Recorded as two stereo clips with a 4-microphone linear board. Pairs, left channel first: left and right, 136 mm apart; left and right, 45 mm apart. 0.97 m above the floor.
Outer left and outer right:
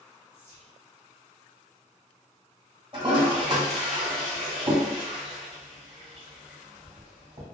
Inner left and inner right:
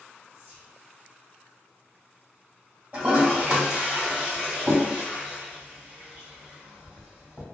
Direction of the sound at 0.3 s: 25° right (ahead or behind).